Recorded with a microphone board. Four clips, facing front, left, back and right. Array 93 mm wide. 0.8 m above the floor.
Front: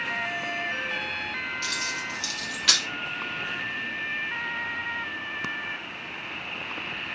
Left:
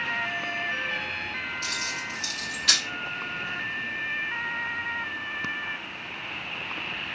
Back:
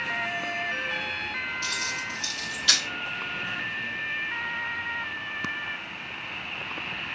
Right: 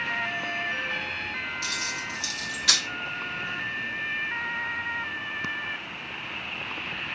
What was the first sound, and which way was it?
Keys jangling, 5° right.